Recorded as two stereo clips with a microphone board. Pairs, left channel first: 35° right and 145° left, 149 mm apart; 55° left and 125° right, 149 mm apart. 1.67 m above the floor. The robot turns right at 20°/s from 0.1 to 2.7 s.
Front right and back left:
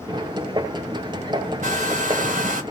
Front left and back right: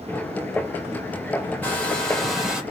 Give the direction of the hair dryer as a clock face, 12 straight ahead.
8 o'clock.